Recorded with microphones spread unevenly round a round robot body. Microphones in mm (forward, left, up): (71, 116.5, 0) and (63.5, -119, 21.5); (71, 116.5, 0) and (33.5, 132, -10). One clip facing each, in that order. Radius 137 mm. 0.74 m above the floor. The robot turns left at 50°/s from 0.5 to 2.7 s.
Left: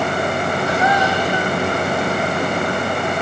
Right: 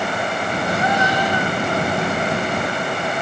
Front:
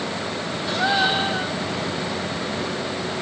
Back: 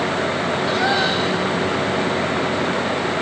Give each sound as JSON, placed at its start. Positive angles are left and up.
{"t": 0.7, "sound": "a gasp", "azimuth_deg": 80, "distance_m": 3.5}